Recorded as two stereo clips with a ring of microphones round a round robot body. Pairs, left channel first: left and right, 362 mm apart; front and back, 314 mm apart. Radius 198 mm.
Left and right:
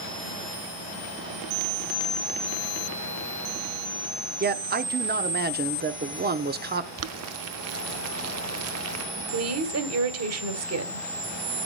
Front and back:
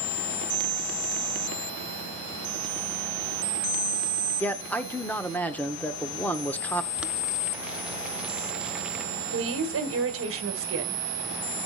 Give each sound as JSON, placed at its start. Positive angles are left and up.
{"t": 4.4, "sound": "a man speaking", "azimuth_deg": -80, "distance_m": 0.9}
{"t": 7.0, "sound": "boiling", "azimuth_deg": -95, "distance_m": 0.7}
{"t": 9.3, "sound": "a woman speaking", "azimuth_deg": -135, "distance_m": 1.7}